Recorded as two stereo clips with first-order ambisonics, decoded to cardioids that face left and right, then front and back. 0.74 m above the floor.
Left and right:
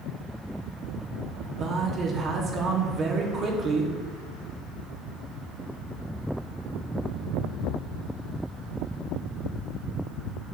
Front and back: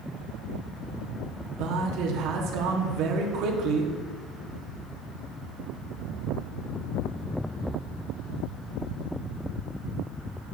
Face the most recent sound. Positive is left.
turn(degrees=-150)